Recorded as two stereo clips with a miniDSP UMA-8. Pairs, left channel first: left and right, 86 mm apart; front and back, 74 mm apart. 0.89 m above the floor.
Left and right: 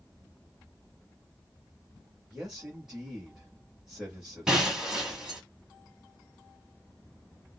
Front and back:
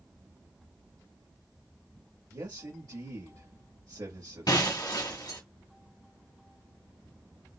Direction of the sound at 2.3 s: 175° right.